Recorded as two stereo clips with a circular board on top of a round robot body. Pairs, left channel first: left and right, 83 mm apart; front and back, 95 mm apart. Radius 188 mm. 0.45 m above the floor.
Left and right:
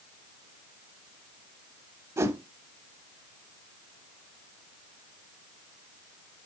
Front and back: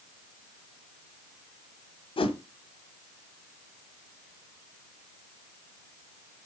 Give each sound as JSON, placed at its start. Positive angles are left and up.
{"t": 2.2, "sound": "a whoosh", "azimuth_deg": -35, "distance_m": 0.6}